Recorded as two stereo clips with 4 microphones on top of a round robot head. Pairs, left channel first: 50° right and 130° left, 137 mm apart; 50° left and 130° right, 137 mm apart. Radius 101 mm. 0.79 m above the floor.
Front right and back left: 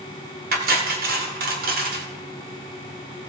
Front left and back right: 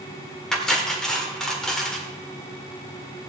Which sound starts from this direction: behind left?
Cutlery clinking, at 0.5 s.